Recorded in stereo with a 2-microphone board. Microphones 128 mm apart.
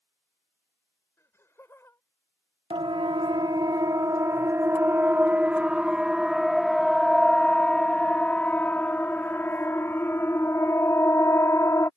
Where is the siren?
45° right (ahead or behind); by 11.9 s 25° left (ahead or behind).